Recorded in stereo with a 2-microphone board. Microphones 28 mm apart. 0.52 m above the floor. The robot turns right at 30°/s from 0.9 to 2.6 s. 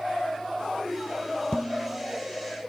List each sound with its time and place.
1.5 s dishes clattering: 40° left (ahead or behind), 1.4 m; by 2.2 s 55° left (ahead or behind), 1.4 m